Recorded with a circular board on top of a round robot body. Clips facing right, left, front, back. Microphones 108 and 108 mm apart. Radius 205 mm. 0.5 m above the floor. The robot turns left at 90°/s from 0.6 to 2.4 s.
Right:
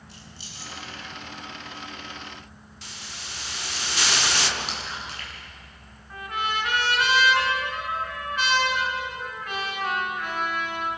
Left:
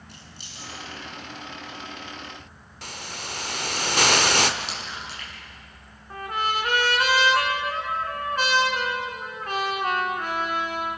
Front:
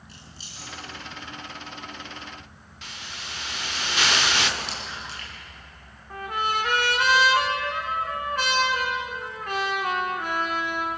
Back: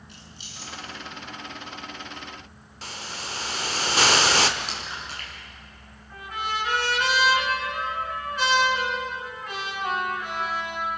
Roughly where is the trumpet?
Ahead left.